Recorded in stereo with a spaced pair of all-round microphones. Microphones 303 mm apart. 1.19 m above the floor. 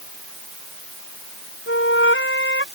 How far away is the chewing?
I don't hear chewing.